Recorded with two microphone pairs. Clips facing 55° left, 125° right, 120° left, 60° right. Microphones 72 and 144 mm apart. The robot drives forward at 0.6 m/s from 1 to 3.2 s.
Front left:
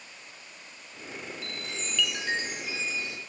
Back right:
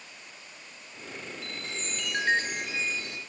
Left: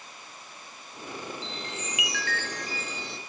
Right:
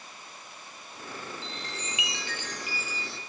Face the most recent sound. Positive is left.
turn(degrees=-150)